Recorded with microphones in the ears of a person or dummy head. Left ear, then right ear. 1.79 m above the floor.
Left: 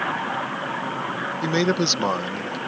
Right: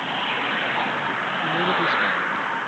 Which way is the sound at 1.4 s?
70° left (ahead or behind).